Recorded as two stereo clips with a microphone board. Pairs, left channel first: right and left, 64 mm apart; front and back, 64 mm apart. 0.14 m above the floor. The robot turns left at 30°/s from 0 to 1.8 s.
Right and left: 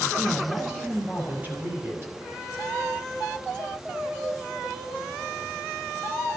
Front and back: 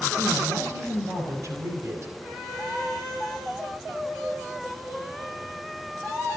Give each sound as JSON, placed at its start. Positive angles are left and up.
{"t": 0.2, "sound": "a woman speaking", "azimuth_deg": -175, "distance_m": 4.0}